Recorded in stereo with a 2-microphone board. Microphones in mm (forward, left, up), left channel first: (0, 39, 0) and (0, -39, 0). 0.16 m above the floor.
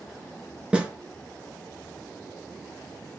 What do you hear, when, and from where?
0.7 s a snare drum: 15° right (ahead or behind), 1.5 m